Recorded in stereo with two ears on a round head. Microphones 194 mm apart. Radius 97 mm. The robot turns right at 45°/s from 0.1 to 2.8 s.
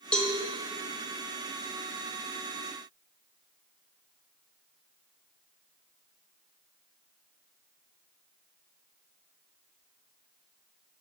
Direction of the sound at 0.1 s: 5° left (ahead or behind).